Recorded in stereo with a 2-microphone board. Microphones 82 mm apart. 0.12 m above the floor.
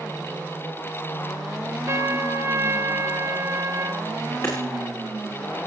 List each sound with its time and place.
1.9 s a trumpet: 40° right (ahead or behind), 0.8 m
4.4 s hammering: 35° left (ahead or behind), 6 m